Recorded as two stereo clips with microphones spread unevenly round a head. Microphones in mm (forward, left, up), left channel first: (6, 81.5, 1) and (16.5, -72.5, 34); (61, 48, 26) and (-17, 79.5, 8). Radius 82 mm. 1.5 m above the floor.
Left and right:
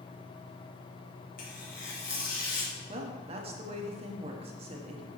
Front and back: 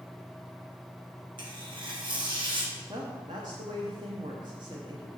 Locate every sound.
1.4 s tearing paper: 135° left, 2 m
2.9 s a woman speaking: 140° right, 1.0 m